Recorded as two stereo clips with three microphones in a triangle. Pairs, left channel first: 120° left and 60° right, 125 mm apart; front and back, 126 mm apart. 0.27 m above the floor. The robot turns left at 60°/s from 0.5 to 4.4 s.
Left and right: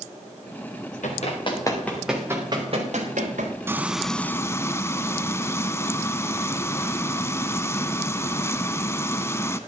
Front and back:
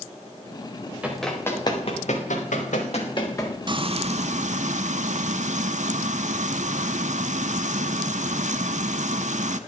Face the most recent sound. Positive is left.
turn(degrees=-175)